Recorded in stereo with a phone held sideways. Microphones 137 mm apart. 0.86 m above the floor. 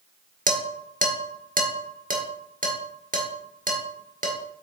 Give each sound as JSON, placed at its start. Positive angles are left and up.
{"t": 0.5, "sound": "dishes clattering", "side_deg": -75, "distance_m": 1.7}